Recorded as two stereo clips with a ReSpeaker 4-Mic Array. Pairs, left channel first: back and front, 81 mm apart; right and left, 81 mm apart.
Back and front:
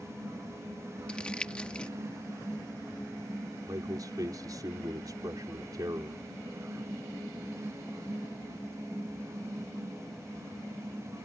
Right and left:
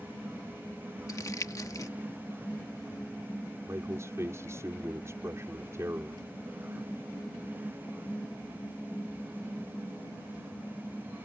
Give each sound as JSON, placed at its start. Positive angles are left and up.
{"t": 1.1, "sound": "crumpling", "azimuth_deg": -110}
{"t": 3.7, "sound": "a man speaking", "azimuth_deg": 35}